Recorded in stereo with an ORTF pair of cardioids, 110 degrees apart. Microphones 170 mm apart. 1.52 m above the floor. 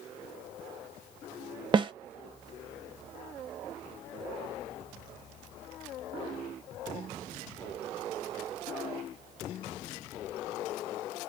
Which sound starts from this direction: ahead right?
A snare drum, at 1.7 s.